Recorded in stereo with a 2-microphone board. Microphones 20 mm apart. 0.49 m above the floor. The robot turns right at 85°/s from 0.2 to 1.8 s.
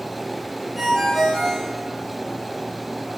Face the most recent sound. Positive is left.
turn(degrees=65)